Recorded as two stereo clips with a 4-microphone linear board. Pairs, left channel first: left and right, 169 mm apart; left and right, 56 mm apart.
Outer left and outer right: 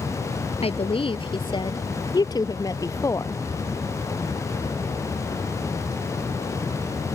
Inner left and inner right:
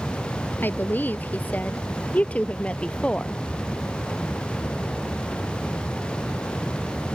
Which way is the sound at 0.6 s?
35° left (ahead or behind).